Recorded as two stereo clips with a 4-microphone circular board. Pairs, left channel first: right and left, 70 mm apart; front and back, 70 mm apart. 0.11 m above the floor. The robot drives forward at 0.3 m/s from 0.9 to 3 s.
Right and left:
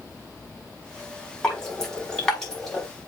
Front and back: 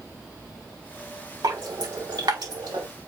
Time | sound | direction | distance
1.4 | dripping | 170° right | 5 m